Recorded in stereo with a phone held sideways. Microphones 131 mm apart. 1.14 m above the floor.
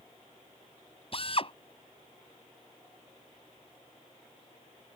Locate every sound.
1.1 s a drill: 45° left (ahead or behind)